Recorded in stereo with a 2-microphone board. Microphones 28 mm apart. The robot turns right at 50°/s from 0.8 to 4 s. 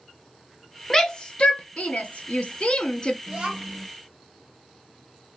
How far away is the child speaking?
About 0.9 m.